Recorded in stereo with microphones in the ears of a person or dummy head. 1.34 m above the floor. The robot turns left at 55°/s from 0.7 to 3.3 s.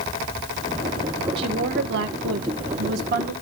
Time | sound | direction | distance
1.4 | a woman speaking | 30° right | 1.2 m